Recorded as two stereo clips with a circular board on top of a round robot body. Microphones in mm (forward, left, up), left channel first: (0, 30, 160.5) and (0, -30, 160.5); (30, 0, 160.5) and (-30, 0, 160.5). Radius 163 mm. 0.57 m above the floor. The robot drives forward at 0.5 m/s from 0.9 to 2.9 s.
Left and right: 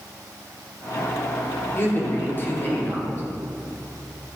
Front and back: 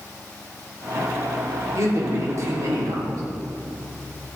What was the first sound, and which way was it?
A man speaking, 140° left.